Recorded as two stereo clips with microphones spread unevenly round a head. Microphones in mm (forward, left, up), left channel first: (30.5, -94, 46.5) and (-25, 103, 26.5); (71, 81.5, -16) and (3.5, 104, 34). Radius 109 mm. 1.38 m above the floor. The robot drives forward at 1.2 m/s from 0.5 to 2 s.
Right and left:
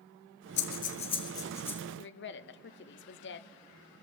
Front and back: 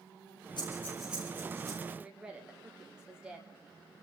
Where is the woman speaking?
90° right, 0.6 m.